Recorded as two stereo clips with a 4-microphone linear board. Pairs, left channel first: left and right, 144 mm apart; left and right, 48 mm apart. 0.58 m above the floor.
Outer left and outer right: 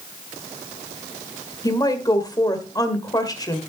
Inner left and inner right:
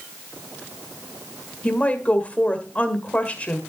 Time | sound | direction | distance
1.6 | a woman speaking | 25° left (ahead or behind) | 1.7 m